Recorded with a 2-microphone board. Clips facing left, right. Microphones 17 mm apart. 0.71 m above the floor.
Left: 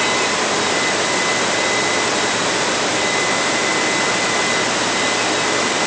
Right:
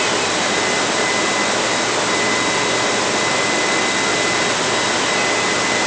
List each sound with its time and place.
Only background noise.